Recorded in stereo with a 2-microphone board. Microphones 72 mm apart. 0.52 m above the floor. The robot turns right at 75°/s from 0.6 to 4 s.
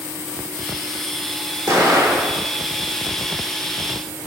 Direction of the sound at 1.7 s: 130° right.